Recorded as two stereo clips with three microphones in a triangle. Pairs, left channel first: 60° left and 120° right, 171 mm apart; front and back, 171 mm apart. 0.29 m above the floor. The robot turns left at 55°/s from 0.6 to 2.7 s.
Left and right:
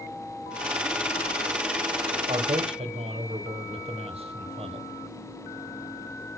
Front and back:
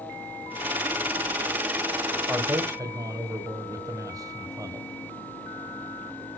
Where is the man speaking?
100° right, 1.5 m; by 4.9 s 125° right, 1.5 m.